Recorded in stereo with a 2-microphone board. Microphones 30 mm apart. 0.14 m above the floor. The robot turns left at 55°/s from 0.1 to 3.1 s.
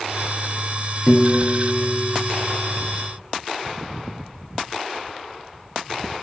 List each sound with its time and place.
1.1 s a piano: 170° left, 0.5 m; by 2.7 s 80° left, 0.5 m